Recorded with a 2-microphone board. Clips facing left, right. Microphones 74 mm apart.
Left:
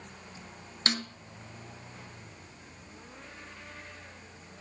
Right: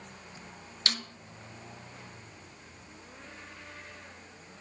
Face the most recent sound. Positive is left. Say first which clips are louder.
# left 4 dB
turn(degrees=35)  # may be behind; listen again after turning